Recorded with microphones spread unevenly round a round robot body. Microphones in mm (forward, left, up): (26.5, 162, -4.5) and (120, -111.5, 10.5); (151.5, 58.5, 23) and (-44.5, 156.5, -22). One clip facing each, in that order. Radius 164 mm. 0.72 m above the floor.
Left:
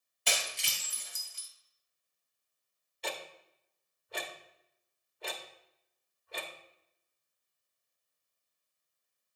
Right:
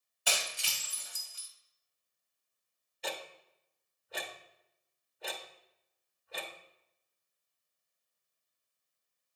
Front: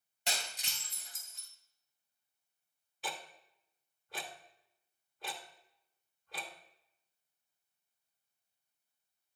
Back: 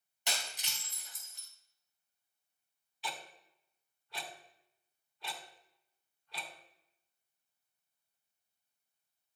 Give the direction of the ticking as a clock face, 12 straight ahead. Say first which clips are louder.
Even, front 1 dB; 11 o'clock.